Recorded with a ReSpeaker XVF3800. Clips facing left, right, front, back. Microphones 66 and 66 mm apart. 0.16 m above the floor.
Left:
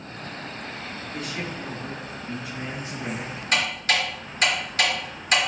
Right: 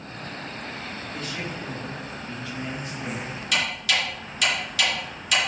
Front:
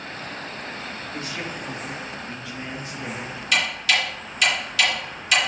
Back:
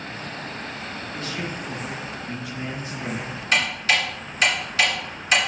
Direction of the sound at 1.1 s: 20° left.